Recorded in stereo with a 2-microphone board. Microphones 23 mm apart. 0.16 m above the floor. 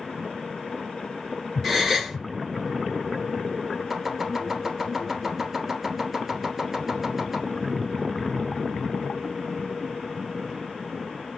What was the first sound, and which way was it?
A gasp, 15° left (ahead or behind).